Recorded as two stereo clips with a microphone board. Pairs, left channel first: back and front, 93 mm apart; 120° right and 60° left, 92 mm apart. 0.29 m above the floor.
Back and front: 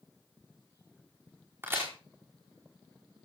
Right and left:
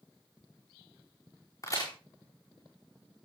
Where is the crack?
65° right, 6 m.